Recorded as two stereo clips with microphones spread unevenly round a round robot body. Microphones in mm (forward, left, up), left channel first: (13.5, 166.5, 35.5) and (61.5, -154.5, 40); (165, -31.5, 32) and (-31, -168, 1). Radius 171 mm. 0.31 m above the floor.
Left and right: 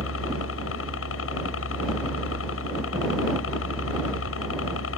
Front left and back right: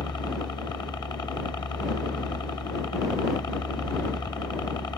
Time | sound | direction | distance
0.0 | a helicopter | 110° left | ?